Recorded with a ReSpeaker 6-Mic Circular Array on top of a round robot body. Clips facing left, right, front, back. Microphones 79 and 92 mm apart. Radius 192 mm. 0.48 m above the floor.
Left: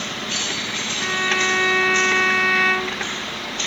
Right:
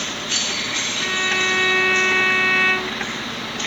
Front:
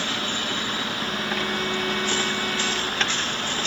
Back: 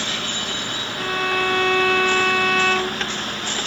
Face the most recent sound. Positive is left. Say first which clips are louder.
# left 1 dB, back 5 dB
turn(degrees=170)